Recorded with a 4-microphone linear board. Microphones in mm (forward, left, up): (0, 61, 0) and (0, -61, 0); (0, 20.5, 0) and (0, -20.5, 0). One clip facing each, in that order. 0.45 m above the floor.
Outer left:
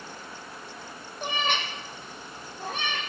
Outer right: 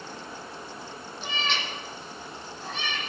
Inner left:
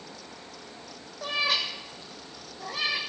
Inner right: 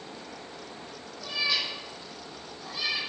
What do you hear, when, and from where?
1.2 s a cat meowing: 50° left (ahead or behind), 3 m